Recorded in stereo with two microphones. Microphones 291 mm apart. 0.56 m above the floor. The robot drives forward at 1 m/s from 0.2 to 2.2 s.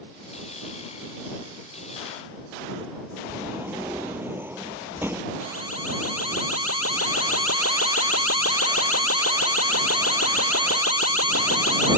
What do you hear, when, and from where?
3.3 s a sliding door: 10° right (ahead or behind)
5.4 s an alarm: 55° left (ahead or behind)